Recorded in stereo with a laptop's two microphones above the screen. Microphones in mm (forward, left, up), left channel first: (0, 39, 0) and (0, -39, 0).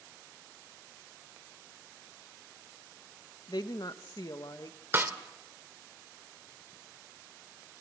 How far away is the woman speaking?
About 1.1 m.